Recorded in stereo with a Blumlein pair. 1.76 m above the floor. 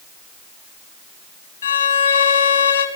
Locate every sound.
1.6 s a violin: 70° left, 3 m